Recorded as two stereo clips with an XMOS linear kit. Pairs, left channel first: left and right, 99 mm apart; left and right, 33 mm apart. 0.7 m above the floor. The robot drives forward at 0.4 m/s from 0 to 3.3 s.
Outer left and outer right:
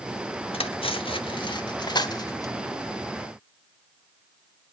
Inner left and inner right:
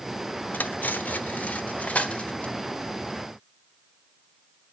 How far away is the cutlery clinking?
About 0.9 m.